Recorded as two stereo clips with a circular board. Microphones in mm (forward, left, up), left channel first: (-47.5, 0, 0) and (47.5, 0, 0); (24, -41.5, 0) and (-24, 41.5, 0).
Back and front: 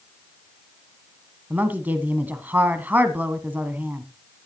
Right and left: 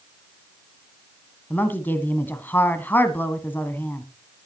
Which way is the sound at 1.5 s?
40° right.